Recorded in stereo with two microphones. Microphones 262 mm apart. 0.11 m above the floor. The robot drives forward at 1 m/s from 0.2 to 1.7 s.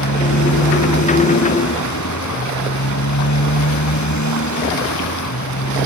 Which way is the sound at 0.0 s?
85° left.